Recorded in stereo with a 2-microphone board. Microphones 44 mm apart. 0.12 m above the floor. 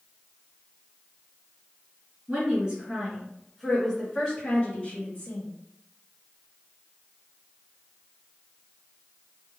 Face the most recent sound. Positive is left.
turn(degrees=35)  # may be behind; listen again after turning